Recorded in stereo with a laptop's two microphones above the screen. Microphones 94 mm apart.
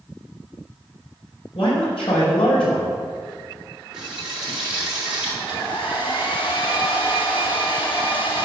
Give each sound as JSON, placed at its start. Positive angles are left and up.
{"t": 1.6, "sound": "a man speaking", "side_deg": 85, "distance_m": 4.0}
{"t": 3.9, "sound": "frying", "side_deg": -10, "distance_m": 3.0}
{"t": 5.4, "sound": "a hair dryer", "side_deg": 65, "distance_m": 1.3}